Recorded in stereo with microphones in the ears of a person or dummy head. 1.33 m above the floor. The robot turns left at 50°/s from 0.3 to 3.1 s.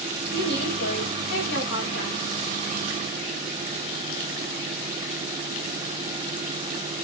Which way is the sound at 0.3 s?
165° left.